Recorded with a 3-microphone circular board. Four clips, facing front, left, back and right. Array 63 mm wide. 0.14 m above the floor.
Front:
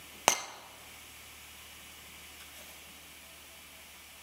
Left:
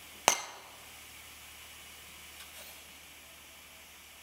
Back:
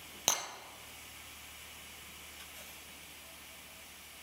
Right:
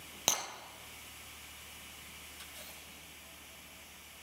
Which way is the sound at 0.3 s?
45° left.